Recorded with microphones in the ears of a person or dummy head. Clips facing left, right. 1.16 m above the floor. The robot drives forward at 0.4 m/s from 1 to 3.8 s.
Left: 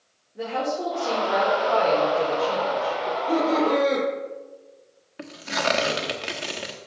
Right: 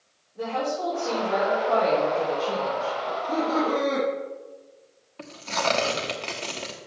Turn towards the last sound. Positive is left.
turn(degrees=15)  # may be behind; listen again after turning